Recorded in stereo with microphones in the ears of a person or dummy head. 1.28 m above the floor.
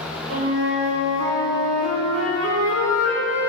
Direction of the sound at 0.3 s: 65° right (ahead or behind).